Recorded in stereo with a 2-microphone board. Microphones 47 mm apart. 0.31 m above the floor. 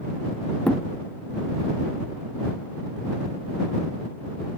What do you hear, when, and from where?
0.7 s a thud: 25° left (ahead or behind)